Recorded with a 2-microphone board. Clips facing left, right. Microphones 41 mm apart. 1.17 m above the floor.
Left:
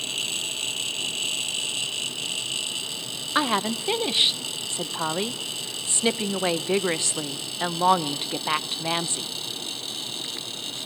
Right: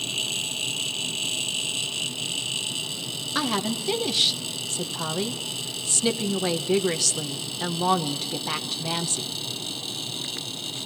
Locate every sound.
3.4 s a woman speaking: 25° left (ahead or behind), 1.0 m